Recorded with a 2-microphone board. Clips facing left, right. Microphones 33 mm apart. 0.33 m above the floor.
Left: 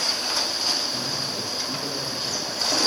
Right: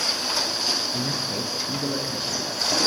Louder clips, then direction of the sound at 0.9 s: Right 1 dB; 35° right (ahead or behind).